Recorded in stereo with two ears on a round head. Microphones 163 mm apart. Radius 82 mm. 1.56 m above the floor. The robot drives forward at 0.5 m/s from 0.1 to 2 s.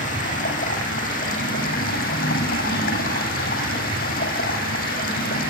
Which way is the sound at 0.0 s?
45° left (ahead or behind).